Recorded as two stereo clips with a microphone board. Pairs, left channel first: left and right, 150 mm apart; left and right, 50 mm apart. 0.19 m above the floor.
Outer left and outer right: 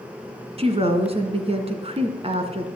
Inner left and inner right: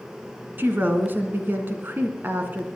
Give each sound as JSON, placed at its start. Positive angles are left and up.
{"t": 0.6, "sound": "a woman speaking", "side_deg": -40, "distance_m": 2.0}